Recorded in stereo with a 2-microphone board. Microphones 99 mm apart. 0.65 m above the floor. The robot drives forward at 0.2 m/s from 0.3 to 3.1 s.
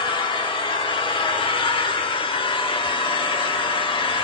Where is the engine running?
55° left (ahead or behind), 1.0 m; by 4.2 s 60° left (ahead or behind), 1.0 m.